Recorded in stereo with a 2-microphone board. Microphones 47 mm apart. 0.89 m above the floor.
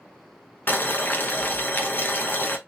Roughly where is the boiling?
Left.